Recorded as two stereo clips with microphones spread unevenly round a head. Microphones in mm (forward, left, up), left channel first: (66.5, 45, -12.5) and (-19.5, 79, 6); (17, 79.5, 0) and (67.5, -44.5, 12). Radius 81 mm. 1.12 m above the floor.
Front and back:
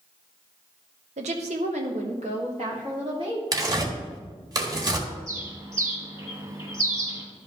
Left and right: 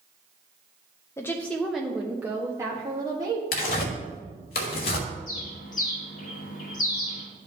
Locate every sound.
1.2 s a woman speaking: 175° right, 0.7 m; by 3.4 s 135° right, 1.8 m
3.5 s tearing paper: 125° left, 1.5 m
5.3 s a bird: 100° left, 2 m